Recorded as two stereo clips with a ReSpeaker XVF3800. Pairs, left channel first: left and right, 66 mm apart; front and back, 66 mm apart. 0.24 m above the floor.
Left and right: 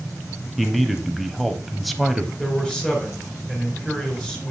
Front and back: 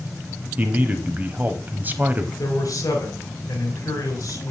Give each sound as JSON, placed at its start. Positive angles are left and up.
{"t": 0.6, "sound": "a man speaking", "azimuth_deg": 180, "distance_m": 1.1}
{"t": 2.4, "sound": "a man speaking", "azimuth_deg": 15, "distance_m": 3.5}